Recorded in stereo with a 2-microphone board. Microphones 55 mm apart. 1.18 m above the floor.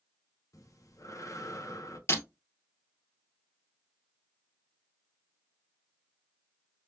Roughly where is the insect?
I don't hear an insect.